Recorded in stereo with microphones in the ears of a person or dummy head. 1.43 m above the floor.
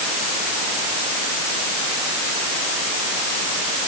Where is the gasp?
I don't hear a gasp.